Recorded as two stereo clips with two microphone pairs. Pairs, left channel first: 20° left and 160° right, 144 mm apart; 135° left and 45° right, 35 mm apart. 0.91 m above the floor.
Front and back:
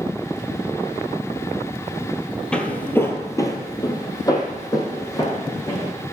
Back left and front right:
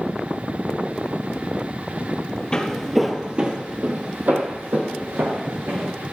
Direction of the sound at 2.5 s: 95° left.